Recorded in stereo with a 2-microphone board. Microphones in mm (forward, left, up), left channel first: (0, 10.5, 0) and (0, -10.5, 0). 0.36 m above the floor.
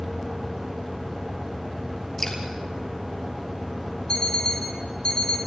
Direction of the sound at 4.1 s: 45° left (ahead or behind).